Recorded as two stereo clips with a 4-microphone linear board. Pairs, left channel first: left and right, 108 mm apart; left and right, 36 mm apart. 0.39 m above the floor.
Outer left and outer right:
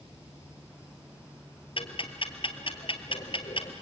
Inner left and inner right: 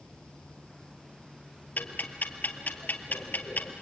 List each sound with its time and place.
1.8 s ticking: 60° left (ahead or behind), 1.8 m